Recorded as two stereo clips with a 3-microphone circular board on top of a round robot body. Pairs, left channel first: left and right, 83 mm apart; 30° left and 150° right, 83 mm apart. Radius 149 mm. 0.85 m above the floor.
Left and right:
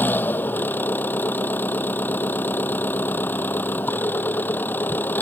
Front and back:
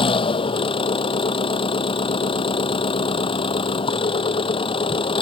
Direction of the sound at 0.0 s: 20° left.